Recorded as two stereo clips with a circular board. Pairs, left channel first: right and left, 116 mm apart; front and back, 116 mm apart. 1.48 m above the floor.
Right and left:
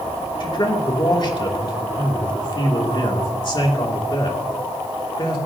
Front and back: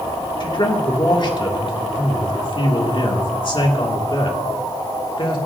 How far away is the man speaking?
About 2.5 m.